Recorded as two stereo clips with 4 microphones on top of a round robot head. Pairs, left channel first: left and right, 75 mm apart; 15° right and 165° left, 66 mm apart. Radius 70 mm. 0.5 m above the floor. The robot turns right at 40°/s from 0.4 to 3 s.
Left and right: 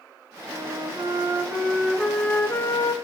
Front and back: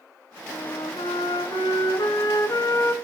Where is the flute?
65° right, 0.6 m; by 3.0 s 35° left, 0.6 m.